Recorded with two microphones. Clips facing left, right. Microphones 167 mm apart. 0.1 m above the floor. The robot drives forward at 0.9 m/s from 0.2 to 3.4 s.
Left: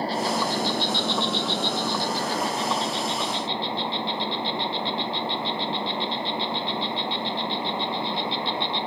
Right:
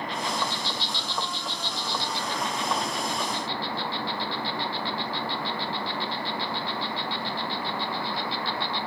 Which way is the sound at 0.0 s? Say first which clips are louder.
Left 5 dB; 35° left (ahead or behind).